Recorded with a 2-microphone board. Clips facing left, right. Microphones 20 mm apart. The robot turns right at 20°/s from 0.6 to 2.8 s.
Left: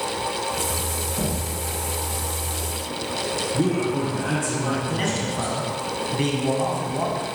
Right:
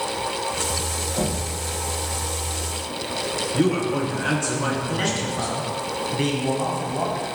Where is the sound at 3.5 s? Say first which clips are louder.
Right 2 dB; 40° right (ahead or behind), 4.5 m.